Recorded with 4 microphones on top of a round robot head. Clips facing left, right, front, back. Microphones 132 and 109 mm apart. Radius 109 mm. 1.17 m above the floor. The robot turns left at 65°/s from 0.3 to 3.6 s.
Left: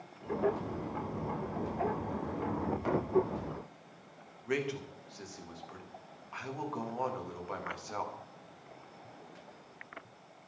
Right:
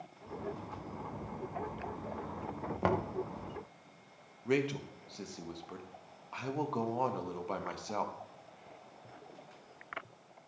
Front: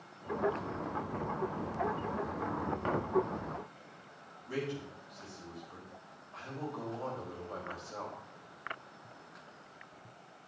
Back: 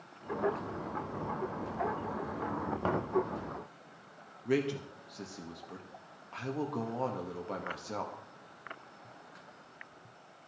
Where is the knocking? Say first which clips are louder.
Right 4 dB, back 3 dB; 110° right, 0.9 m; by 3.1 s 130° right, 0.9 m.